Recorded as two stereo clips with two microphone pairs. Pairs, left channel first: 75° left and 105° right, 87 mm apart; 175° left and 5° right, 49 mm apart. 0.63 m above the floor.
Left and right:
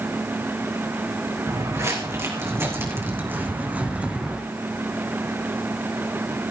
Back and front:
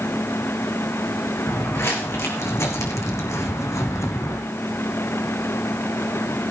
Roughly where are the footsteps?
Behind right.